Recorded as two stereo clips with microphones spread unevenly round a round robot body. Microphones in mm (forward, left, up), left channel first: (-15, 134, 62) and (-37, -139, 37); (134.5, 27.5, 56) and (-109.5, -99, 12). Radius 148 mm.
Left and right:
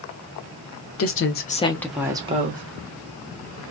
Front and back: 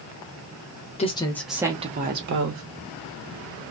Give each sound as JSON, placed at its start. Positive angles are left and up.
{"t": 1.0, "sound": "a woman speaking", "azimuth_deg": 100, "distance_m": 0.8}